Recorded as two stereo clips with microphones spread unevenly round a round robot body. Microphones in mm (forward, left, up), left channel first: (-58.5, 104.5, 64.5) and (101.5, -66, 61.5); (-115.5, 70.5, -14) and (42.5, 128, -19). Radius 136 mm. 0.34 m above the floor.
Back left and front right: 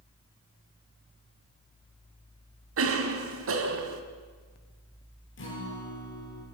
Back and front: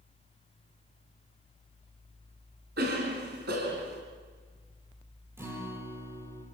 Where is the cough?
25° right, 3.5 m.